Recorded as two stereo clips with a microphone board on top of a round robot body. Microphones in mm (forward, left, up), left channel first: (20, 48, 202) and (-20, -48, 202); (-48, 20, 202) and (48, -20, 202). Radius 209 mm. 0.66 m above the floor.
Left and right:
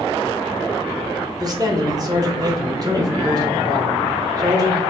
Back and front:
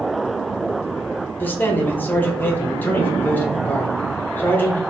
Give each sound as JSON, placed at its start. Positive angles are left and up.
{"t": 1.4, "sound": "a man speaking", "azimuth_deg": -140, "distance_m": 1.0}